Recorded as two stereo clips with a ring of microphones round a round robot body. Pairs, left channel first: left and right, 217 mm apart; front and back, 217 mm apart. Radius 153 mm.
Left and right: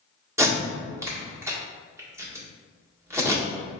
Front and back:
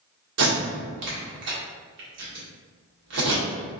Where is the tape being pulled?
170° right, 1.5 m.